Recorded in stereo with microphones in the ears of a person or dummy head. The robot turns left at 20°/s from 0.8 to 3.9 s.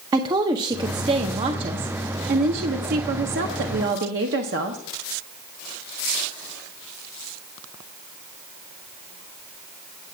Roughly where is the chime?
I don't hear a chime.